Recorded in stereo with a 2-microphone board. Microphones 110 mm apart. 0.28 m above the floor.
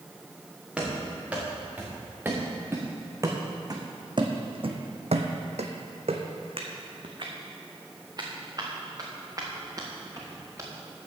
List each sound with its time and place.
0.8 s running footsteps: 10° right (ahead or behind), 3 m; by 10.7 s 25° right (ahead or behind), 3.5 m